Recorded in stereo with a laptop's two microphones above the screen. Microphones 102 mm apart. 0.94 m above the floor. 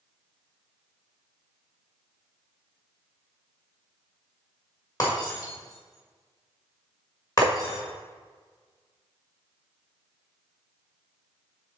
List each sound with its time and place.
5.0 s breaking glass: 35° left (ahead or behind), 1.7 m
7.4 s tapping: 65° right (ahead or behind), 0.6 m